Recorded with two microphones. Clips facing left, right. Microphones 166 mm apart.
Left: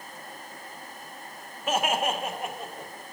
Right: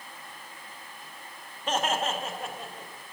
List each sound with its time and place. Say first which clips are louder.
1.7 s laughter: left 2 dB; 5° left (ahead or behind), 1.2 m; by 2.9 s 20° left (ahead or behind), 2 m